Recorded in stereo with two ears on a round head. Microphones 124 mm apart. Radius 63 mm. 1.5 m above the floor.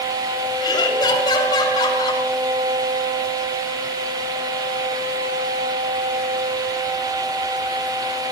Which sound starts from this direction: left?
Laughter, at 0.6 s.